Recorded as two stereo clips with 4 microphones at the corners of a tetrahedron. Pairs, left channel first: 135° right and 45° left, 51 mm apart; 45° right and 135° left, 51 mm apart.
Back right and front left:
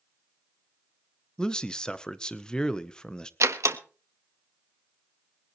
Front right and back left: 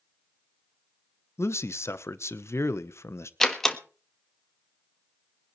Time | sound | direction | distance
1.4 | a man speaking | 60° right | 1.0 m
3.4 | a door slam | 35° left | 1.4 m